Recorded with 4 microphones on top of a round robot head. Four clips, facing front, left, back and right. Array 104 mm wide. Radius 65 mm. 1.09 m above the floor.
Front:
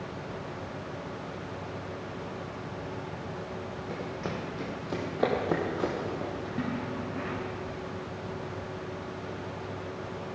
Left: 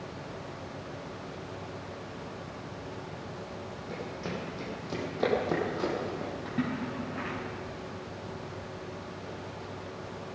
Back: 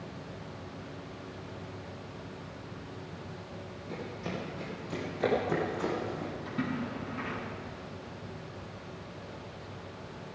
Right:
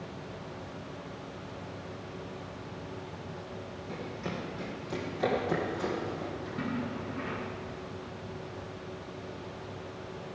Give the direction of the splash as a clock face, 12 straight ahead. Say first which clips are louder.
Left 3 dB, front 1 dB; 10 o'clock.